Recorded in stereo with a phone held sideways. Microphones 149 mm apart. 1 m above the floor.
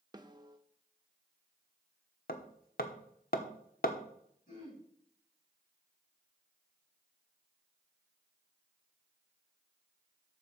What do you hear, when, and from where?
0.1 s a snare drum: 30° right (ahead or behind), 1.0 m
2.3 s hammering: 80° left, 1.2 m
4.5 s throat clearing: 55° left (ahead or behind), 6.5 m